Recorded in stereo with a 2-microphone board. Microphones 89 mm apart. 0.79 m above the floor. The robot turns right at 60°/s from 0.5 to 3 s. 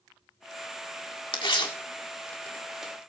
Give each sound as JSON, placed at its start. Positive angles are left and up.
{"t": 1.3, "sound": "tearing paper", "side_deg": 70, "distance_m": 1.9}